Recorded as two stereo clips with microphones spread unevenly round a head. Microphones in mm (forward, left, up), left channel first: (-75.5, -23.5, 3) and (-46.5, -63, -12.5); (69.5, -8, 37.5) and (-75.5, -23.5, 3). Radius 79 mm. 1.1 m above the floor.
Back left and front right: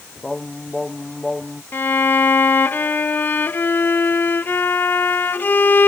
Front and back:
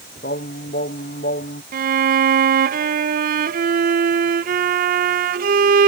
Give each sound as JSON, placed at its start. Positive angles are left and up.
{"t": 0.2, "sound": "singing", "azimuth_deg": 40}
{"t": 1.7, "sound": "a violin", "azimuth_deg": 180}